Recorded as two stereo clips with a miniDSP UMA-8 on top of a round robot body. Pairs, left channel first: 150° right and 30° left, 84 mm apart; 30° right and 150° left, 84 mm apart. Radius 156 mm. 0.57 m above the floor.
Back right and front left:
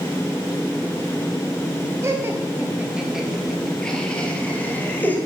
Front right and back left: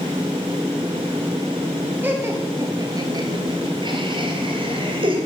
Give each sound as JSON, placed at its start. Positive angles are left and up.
{"t": 2.0, "sound": "laughter", "azimuth_deg": 85, "distance_m": 1.5}